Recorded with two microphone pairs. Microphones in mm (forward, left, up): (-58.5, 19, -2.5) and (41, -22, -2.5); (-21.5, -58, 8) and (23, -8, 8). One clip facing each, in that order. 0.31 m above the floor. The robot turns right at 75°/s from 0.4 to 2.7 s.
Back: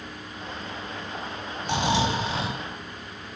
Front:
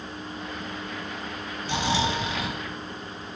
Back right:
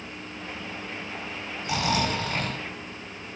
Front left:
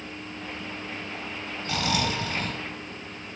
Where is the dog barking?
I don't hear a dog barking.